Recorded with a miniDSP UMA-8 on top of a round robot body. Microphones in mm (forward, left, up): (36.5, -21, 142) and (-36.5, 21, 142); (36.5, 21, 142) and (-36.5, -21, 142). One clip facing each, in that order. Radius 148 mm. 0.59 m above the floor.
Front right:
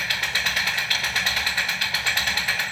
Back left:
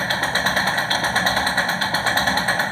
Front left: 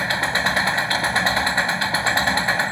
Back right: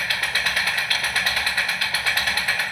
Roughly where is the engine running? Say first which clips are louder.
Back left 6 dB, front left 4 dB; left.